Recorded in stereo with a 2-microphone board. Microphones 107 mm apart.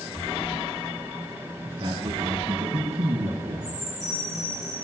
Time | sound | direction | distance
1.6 | a man speaking | 55° right (ahead or behind) | 4.5 m
3.6 | a chime | 80° left | 7.5 m